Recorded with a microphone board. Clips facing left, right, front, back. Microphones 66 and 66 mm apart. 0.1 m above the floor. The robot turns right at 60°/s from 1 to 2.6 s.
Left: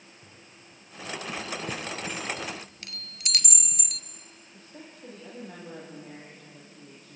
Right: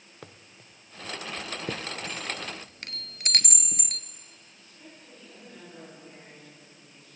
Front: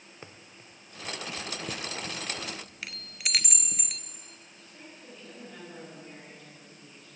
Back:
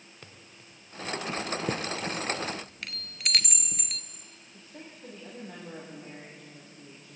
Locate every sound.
0.2 s running footsteps: 70° right, 1.8 m; by 2.5 s 45° left, 5 m
1.7 s a chime: 140° right, 0.9 m; by 4.0 s 85° right, 0.9 m
4.5 s a woman speaking: 120° left, 7 m